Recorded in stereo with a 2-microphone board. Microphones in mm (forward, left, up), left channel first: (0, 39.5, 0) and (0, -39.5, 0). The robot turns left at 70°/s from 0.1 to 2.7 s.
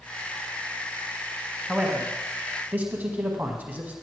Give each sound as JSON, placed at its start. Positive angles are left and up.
{"t": 1.7, "sound": "a man speaking", "side_deg": -5, "distance_m": 1.0}